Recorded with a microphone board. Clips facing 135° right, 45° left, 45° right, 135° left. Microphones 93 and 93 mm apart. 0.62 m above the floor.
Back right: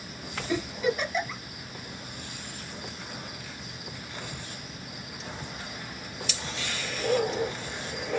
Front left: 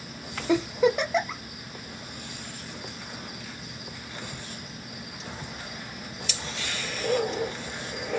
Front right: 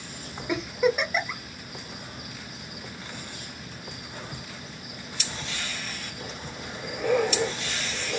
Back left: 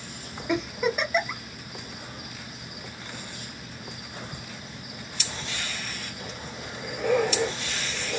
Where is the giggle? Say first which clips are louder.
Front left 6 dB, front right 2 dB; 45° left, 0.9 m.